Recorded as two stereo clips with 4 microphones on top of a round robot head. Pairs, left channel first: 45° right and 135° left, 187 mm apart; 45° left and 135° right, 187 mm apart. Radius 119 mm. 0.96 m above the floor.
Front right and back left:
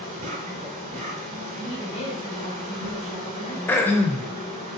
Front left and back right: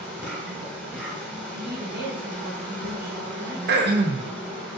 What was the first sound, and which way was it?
An insect, 140° left.